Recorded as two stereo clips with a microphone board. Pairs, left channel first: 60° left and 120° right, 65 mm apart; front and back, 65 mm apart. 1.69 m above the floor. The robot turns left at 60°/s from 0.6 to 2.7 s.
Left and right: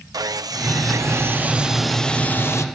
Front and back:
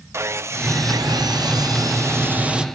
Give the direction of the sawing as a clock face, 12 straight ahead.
4 o'clock.